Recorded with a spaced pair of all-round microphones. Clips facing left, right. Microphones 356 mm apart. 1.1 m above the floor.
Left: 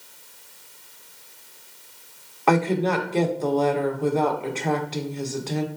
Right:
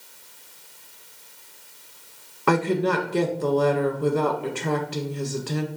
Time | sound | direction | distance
2.5 | a woman speaking | 20° right (ahead or behind) | 0.9 m